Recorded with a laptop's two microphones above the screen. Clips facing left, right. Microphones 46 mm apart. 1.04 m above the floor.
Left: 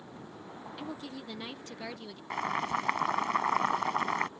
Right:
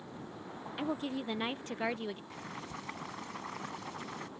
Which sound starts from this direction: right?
A woman speaking, at 0.8 s.